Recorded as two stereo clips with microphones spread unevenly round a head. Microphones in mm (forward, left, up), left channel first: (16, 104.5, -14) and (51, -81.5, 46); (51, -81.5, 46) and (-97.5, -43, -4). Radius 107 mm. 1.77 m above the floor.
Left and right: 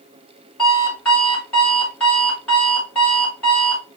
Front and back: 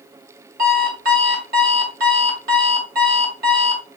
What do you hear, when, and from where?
0.6 s an alarm clock: 165° right, 1.7 m